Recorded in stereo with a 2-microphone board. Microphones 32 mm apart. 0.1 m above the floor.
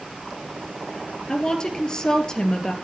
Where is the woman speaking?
25° left (ahead or behind), 2.5 m.